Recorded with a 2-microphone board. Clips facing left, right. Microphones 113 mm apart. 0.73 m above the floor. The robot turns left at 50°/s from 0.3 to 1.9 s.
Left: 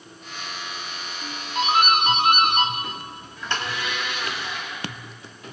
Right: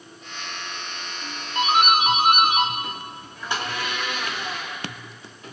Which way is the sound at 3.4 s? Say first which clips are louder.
Right 1 dB; 55° right (ahead or behind).